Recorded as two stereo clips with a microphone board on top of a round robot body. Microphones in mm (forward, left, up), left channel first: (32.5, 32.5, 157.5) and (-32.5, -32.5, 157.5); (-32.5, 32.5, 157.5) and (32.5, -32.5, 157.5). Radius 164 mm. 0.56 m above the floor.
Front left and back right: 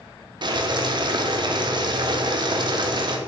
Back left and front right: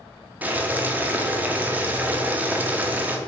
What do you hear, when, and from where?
0.4 s boiling: 115° right, 0.6 m